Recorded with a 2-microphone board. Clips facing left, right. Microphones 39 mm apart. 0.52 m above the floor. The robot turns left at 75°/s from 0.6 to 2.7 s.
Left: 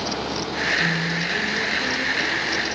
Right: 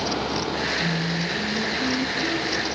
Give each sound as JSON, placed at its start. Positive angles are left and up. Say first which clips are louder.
{"t": 0.8, "sound": "singing", "louder": "left 3 dB", "azimuth_deg": 85, "distance_m": 1.2}